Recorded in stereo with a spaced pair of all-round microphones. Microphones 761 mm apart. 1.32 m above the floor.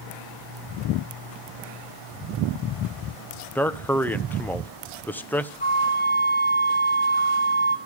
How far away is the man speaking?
About 0.6 m.